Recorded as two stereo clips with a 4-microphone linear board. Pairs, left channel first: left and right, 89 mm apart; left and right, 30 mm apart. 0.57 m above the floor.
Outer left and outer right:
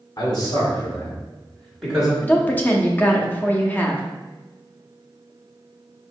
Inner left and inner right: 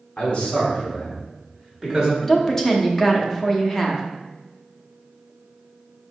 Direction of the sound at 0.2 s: 50° left (ahead or behind).